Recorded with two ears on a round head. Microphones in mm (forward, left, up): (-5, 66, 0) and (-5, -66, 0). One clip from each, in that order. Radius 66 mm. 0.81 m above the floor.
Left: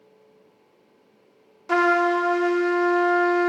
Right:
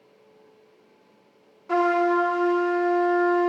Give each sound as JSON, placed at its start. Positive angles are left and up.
{"t": 1.7, "sound": "a trumpet", "side_deg": 85, "distance_m": 0.6}